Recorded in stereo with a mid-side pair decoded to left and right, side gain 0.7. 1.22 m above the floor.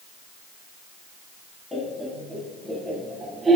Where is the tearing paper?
No tearing paper in this recording.